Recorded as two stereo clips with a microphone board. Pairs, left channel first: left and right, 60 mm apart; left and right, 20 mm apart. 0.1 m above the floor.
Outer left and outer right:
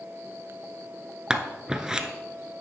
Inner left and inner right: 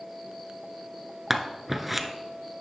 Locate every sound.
1.3 s scissors: 10° right (ahead or behind), 0.8 m